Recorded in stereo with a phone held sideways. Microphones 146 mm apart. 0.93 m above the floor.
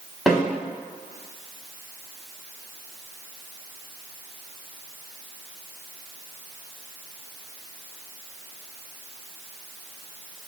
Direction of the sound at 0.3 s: Centre (ahead or behind).